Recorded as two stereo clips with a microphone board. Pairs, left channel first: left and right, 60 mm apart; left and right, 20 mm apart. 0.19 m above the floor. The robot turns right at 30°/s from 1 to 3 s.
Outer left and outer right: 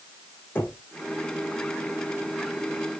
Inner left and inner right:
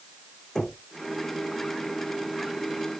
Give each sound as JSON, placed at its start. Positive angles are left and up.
{"t": 0.6, "sound": "knocking", "side_deg": 30, "distance_m": 5.5}